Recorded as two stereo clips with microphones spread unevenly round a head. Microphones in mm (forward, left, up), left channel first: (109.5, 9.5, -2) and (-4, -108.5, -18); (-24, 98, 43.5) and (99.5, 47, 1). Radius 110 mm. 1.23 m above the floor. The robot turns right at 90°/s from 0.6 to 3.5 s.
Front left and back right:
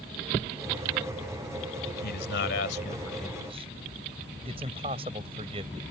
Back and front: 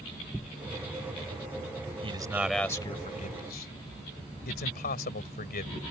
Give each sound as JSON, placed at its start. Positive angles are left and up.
{"t": 2.0, "sound": "a man speaking", "azimuth_deg": 25}